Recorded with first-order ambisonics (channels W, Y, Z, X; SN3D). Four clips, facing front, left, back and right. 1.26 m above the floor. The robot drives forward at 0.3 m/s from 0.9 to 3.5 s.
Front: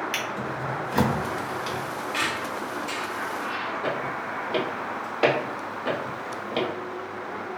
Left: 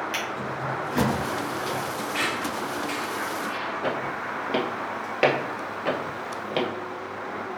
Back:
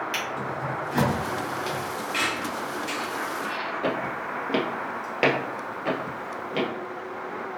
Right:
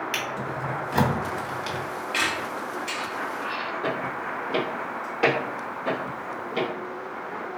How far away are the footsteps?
About 1.9 m.